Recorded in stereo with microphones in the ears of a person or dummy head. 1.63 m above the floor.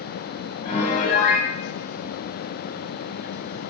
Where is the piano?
35° left (ahead or behind), 1.0 m.